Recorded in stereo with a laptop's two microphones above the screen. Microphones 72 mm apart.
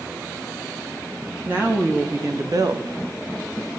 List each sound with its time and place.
1.4 s a woman speaking: 25° right (ahead or behind), 1.8 m; by 3.8 s 55° right (ahead or behind), 1.1 m